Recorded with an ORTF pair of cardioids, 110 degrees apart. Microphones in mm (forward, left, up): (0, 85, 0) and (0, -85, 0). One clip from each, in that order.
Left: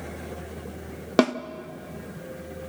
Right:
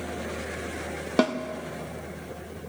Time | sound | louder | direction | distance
1.2 | a snare drum | left 3 dB | 30° left | 0.9 m